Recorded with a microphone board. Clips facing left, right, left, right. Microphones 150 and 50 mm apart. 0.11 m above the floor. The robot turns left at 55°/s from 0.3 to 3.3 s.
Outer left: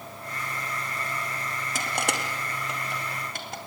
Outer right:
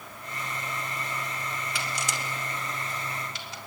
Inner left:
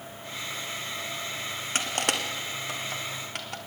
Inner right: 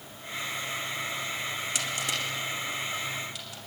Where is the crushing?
45° left (ahead or behind), 2.5 m; by 3.6 s 50° left (ahead or behind), 2.5 m.